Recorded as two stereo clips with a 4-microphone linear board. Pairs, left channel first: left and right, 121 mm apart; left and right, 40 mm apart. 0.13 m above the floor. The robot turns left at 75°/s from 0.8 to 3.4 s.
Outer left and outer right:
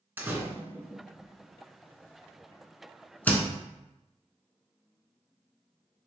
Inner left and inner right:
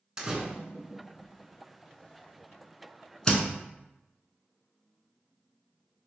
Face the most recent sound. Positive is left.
turn(degrees=10)  # may be behind; listen again after turning